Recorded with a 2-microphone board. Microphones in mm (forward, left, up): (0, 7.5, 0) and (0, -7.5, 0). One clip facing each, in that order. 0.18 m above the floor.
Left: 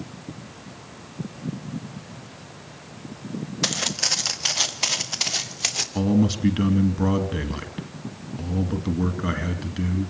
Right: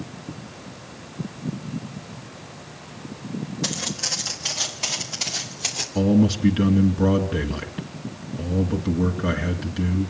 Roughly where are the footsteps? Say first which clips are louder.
Left 4 dB; left.